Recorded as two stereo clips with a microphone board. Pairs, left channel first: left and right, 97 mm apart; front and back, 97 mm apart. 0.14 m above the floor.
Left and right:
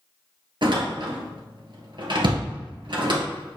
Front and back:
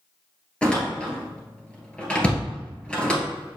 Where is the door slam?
75° right, 1.8 m.